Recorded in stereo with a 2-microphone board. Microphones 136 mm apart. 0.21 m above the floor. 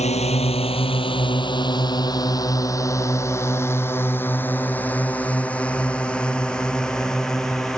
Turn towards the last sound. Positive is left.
turn(degrees=5)  # may be behind; listen again after turning